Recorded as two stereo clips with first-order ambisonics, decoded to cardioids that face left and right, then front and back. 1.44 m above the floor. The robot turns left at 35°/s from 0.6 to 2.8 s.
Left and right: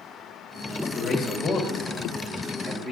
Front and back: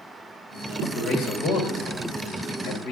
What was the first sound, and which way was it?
A man speaking, 35° left.